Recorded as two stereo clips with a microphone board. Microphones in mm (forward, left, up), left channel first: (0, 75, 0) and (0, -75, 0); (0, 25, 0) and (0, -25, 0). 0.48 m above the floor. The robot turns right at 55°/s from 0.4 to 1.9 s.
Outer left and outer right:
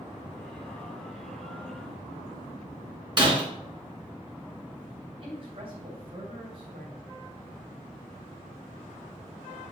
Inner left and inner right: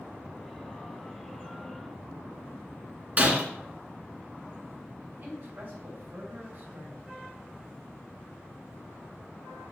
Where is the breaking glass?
35° right (ahead or behind), 3 m.